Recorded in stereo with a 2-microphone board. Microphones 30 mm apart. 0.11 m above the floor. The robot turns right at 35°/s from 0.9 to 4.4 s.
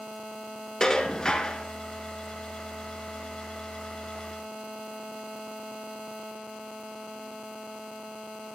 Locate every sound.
0.8 s dishes clattering: 20° left (ahead or behind), 0.9 m; by 1.7 s 25° left (ahead or behind), 0.9 m